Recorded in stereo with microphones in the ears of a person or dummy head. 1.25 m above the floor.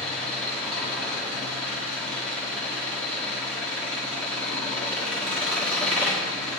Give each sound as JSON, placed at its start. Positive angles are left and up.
{"t": 0.0, "sound": "an engine running", "side_deg": 5, "distance_m": 1.3}